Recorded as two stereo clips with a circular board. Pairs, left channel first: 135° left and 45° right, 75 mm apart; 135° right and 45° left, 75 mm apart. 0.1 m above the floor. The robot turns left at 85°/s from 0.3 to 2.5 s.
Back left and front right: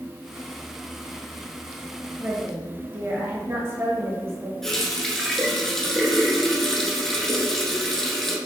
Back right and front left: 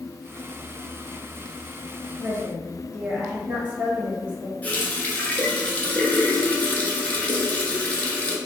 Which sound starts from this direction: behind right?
A running tap, at 4.6 s.